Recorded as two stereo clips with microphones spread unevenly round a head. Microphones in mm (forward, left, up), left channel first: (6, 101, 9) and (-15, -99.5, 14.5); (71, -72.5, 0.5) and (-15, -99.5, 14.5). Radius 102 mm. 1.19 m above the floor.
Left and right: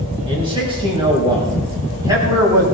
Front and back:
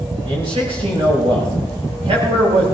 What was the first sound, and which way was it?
A man speaking, 160° right.